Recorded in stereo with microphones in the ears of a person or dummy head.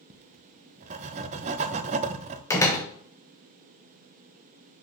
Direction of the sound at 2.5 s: 10° left (ahead or behind).